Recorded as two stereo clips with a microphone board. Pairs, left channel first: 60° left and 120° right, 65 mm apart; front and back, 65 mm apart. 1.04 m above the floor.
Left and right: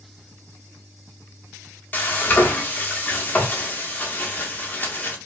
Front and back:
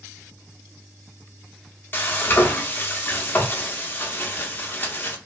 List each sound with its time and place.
1.9 s frying: 25° left, 0.7 m